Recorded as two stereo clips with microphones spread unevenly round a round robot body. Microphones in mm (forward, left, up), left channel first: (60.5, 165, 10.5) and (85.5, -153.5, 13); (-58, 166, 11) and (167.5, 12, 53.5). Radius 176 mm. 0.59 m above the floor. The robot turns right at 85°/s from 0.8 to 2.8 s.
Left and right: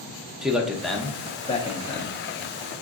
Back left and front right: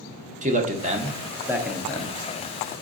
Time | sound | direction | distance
0.4 | a man speaking | straight ahead | 0.5 m